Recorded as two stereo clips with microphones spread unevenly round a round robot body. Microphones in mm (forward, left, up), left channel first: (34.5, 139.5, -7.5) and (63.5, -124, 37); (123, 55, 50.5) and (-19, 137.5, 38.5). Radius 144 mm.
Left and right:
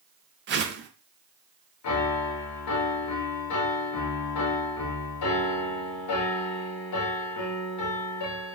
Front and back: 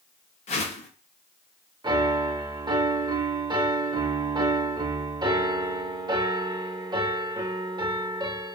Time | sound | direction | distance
0.5 | a whoosh | 45° right | 0.5 m
1.8 | a piano | 85° left | 0.6 m